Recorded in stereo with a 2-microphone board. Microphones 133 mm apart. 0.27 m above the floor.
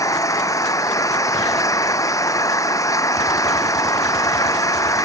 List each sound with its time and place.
0.0 s an engine running: 25° left (ahead or behind)